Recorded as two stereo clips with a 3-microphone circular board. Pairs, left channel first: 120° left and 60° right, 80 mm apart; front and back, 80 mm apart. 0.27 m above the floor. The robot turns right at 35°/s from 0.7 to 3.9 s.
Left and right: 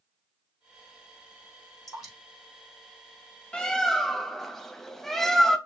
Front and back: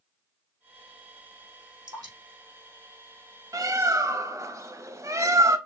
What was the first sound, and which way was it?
Dripping, 150° right.